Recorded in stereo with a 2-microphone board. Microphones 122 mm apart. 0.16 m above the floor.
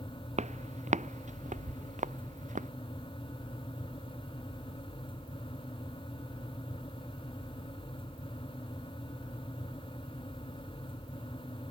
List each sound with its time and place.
0.4 s footsteps: 70° right (ahead or behind); by 2.7 s 85° right